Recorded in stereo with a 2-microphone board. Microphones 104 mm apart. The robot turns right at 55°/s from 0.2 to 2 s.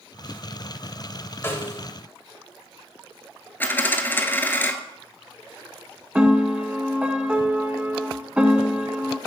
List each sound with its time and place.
1.4 s a snare drum: 25° left (ahead or behind), 1.1 m; by 1.8 s 20° left (ahead or behind), 1.1 m
3.6 s a dropped coin: 20° left (ahead or behind), 0.7 m
6.2 s a piano: 10° right (ahead or behind), 0.7 m